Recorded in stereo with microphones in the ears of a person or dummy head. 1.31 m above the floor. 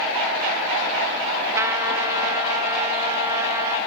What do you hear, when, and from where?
1.6 s a trumpet: 20° right (ahead or behind), 0.8 m